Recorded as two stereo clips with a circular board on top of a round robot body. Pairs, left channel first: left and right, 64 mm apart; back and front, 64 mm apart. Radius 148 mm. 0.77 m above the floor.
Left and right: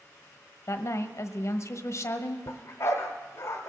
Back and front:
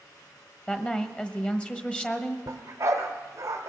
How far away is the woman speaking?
About 1.3 m.